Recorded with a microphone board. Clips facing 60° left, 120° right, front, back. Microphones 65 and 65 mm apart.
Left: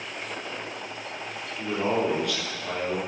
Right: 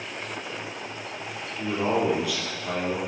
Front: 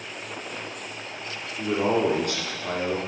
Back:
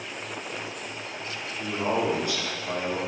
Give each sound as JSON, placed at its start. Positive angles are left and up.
{"t": 1.6, "sound": "a man speaking", "azimuth_deg": -35, "distance_m": 3.5}